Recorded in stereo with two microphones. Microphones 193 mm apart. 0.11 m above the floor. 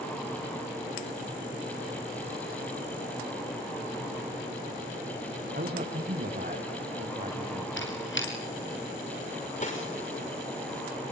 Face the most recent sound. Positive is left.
turn(degrees=40)  # may be behind; listen again after turning